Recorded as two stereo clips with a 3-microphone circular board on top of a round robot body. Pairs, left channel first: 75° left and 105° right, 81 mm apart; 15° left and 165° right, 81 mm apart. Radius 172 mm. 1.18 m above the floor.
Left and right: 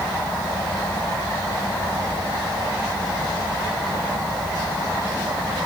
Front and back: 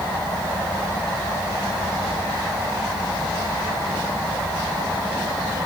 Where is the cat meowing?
I don't hear a cat meowing.